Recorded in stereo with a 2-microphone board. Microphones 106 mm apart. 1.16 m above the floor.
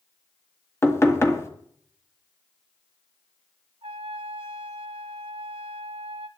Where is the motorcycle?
No motorcycle in this recording.